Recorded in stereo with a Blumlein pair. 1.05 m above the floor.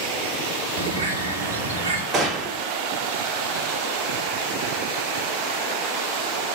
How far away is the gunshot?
About 2.5 m.